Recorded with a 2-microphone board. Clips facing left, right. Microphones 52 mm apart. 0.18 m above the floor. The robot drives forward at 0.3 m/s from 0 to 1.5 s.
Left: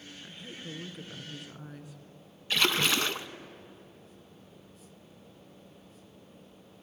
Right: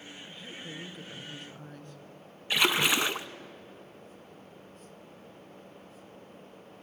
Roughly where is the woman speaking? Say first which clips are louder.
Left 1 dB; centre.